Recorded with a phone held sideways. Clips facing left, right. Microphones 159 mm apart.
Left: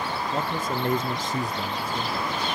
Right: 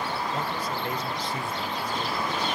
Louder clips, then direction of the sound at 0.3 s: Left 3 dB; 45° left (ahead or behind).